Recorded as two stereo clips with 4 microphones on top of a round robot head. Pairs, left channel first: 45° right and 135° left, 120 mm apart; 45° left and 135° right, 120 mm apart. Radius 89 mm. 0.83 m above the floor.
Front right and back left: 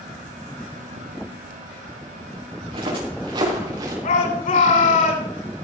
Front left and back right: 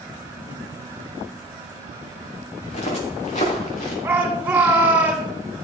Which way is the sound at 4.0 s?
55° right.